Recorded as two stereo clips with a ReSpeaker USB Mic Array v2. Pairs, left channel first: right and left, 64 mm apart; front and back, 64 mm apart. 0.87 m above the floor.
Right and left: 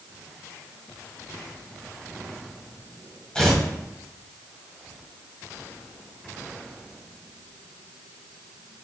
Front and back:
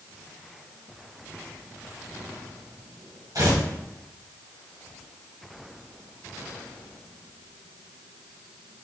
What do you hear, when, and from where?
3.4 s tearing paper: 165° right, 1.3 m